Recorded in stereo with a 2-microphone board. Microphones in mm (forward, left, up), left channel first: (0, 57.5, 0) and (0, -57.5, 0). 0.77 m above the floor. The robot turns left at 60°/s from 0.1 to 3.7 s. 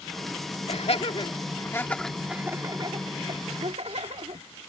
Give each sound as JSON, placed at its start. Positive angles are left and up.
{"t": 0.7, "sound": "laughter", "side_deg": 65}